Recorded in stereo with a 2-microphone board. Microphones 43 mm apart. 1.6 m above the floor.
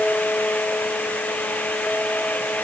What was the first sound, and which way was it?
Only background noise.